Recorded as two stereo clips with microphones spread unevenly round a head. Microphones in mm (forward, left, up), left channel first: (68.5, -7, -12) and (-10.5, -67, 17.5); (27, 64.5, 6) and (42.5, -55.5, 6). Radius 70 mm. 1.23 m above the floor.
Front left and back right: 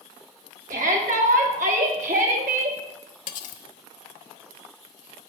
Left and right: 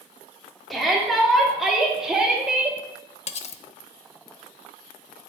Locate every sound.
0.7 s a shout: 175° right, 3.5 m; by 2.8 s 165° right, 2 m
3.3 s cutlery clinking: 65° left, 1.0 m